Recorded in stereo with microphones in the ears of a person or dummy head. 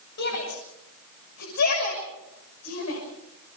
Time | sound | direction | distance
0.2 | a shout | 65° left (ahead or behind) | 7.5 m